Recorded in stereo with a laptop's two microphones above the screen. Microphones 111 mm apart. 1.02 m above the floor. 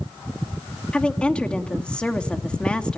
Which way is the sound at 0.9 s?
10° left (ahead or behind).